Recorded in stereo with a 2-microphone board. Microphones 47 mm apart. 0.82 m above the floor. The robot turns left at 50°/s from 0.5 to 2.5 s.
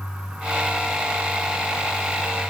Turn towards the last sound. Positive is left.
No sound to turn to.